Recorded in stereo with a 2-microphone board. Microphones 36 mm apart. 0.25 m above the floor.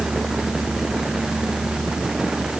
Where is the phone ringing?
I don't hear a phone ringing.